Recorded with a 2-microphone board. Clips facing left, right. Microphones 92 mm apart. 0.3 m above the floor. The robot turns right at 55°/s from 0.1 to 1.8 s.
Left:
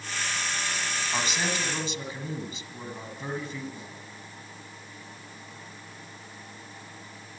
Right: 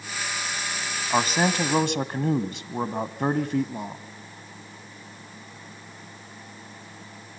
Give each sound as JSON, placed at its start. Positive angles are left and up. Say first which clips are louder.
{"t": 1.1, "sound": "a man speaking", "louder": "right 9 dB", "azimuth_deg": -135, "distance_m": 1.9}